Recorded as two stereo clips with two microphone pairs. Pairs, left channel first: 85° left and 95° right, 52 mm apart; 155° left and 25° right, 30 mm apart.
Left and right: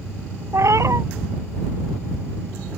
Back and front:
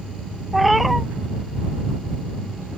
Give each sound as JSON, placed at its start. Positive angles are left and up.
{"t": 0.5, "sound": "a cat meowing", "azimuth_deg": -115}